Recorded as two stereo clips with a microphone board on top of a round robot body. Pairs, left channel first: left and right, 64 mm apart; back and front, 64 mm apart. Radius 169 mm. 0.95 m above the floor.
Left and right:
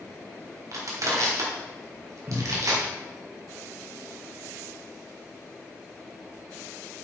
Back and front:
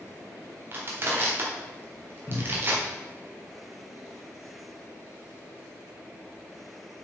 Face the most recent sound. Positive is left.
turn(degrees=-140)